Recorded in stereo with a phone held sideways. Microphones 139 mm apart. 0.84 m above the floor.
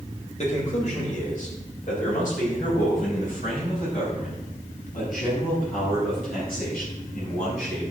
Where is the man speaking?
55° left (ahead or behind), 3.5 m; by 7.8 s 85° left, 8.5 m.